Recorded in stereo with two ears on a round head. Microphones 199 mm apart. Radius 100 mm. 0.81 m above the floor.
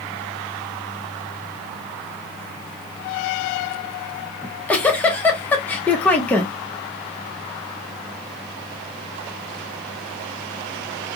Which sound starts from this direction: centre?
A giggle, at 4.4 s.